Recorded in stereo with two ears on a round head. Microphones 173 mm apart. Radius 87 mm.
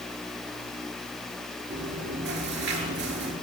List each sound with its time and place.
1.7 s chewing: 60° right (ahead or behind), 6 m